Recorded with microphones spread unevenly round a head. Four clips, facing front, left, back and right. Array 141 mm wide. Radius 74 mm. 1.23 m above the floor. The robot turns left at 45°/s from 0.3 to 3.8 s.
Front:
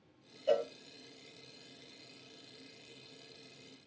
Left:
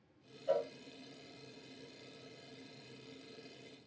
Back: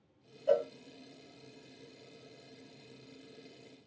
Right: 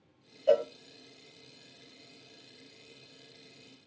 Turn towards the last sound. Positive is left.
turn(degrees=140)